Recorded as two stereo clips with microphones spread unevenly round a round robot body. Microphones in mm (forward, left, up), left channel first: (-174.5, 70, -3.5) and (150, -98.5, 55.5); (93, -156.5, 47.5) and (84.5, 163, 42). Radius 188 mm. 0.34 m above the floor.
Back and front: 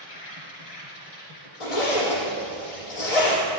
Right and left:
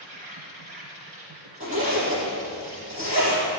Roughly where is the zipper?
Behind.